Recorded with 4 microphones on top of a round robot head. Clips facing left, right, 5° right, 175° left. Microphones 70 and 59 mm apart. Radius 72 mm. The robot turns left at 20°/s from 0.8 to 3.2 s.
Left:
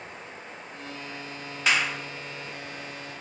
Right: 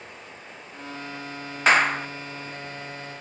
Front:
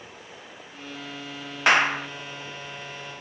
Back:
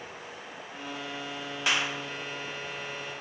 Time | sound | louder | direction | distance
1.7 | a clap | right 7 dB, front 10 dB | 40° right | ?